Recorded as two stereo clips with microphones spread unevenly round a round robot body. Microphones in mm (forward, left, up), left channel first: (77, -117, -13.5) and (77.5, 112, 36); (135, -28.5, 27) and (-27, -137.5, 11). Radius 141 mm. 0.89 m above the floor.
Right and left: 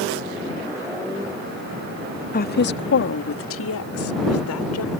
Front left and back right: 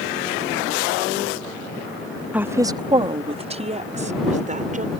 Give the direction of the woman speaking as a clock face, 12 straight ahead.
2 o'clock.